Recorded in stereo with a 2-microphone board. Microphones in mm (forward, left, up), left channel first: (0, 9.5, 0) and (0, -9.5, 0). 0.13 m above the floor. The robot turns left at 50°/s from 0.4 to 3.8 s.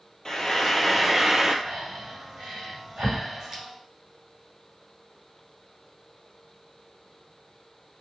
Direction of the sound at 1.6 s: 50° right (ahead or behind).